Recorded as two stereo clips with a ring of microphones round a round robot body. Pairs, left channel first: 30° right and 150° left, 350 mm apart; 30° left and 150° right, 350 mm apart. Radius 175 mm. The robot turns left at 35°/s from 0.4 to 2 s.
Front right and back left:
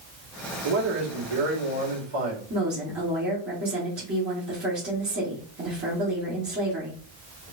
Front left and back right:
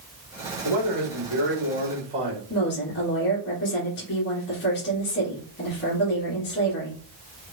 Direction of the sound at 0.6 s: 175° right.